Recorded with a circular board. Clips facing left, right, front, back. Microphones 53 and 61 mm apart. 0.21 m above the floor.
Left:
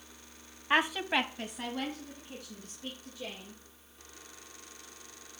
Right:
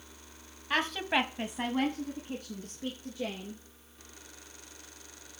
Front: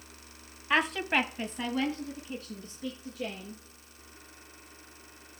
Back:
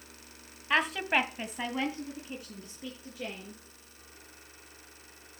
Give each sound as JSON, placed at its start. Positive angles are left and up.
{"t": 0.7, "sound": "a woman speaking", "azimuth_deg": 85, "distance_m": 1.0}